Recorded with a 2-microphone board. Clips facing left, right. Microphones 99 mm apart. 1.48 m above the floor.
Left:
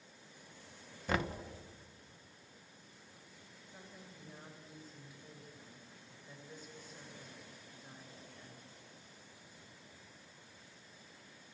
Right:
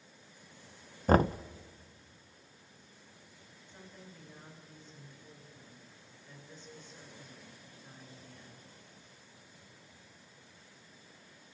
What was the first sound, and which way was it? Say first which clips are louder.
Knocking: right 11 dB; 40° right (ahead or behind).